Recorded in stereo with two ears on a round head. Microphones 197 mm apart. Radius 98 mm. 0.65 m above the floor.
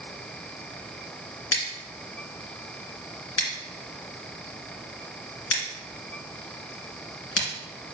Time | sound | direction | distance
1.5 | scissors | 75° left (ahead or behind) | 2 m